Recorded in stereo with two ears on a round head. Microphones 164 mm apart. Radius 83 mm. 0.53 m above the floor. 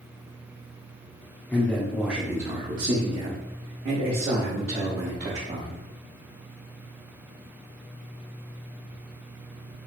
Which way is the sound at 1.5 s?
10° left (ahead or behind).